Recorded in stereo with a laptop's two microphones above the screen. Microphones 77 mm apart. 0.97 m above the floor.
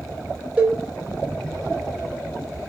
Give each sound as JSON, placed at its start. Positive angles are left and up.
{"t": 0.6, "sound": "a cowbell", "side_deg": -15, "distance_m": 0.8}